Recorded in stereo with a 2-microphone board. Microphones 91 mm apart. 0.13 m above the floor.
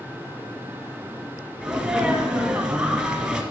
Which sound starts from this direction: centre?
A sneeze, at 1.6 s.